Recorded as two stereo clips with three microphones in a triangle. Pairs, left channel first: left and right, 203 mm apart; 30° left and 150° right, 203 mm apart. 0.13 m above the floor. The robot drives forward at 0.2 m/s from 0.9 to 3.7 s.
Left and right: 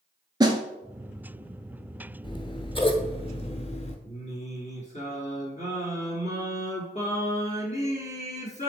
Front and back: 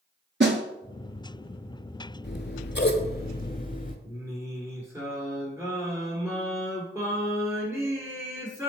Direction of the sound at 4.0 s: 135° left.